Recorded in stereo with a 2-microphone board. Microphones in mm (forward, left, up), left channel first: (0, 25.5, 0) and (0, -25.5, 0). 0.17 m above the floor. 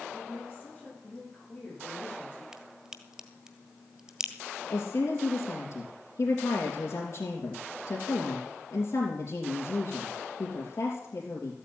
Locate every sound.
0.1 s a woman speaking: 30° left (ahead or behind), 9.5 m
2.5 s a crack: 15° right (ahead or behind), 1.2 m
4.7 s a woman speaking: 70° left (ahead or behind), 3.5 m